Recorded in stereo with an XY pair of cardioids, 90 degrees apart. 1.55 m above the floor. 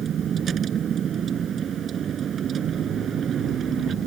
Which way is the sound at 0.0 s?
65° right.